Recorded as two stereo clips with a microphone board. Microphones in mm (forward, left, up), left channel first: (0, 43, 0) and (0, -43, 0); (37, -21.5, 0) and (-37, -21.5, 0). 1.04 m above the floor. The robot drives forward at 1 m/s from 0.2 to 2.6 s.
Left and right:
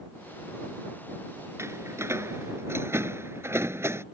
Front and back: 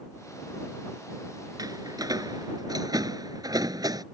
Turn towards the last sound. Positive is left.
turn(degrees=-150)